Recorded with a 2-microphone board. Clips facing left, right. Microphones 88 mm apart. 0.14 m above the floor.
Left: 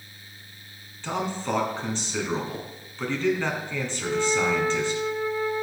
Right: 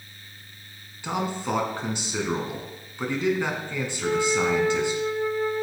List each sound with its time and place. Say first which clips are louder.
1.0 s a man speaking: right 1 dB; 15° right (ahead or behind), 1.6 m
4.0 s a flute: right 1 dB; 45° right (ahead or behind), 2 m